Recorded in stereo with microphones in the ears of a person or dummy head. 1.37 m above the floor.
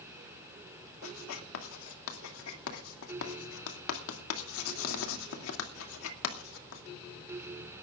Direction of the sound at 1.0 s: 80° left.